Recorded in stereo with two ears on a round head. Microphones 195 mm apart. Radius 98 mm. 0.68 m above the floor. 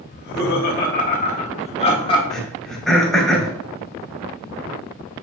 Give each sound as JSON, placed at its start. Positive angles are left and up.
{"t": 0.1, "sound": "laughter", "side_deg": 50, "distance_m": 1.6}
{"t": 2.3, "sound": "throat clearing", "side_deg": 0, "distance_m": 2.0}